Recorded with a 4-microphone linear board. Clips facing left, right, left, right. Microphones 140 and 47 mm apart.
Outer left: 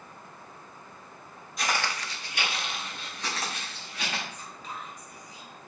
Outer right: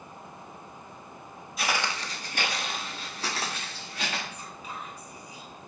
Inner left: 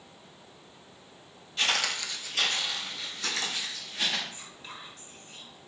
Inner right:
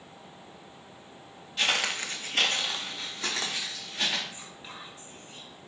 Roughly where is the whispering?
Centre.